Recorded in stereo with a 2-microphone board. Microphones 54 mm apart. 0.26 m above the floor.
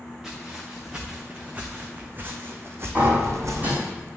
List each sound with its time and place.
0.2 s footsteps: 10° right (ahead or behind), 1.9 m; by 3.9 s 80° right, 1.1 m
3.0 s a sliding door: 30° right (ahead or behind), 3 m